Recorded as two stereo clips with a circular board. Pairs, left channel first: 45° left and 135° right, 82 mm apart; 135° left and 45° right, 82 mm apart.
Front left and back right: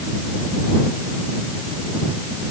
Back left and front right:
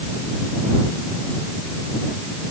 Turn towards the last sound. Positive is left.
No sound to turn to.